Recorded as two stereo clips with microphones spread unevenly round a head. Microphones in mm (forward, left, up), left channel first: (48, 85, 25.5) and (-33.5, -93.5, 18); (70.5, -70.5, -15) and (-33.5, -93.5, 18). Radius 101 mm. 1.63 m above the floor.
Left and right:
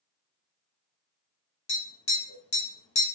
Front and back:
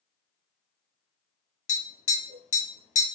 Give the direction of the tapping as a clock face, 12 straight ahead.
11 o'clock.